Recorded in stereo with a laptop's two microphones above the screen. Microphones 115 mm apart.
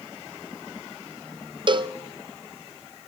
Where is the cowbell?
40° right (ahead or behind), 0.5 m.